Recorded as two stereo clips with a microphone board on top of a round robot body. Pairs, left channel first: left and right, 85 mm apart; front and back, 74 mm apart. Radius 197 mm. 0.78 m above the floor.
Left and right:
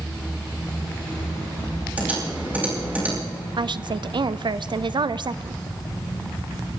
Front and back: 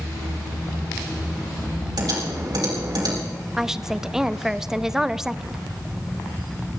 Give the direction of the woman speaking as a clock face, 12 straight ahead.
3 o'clock.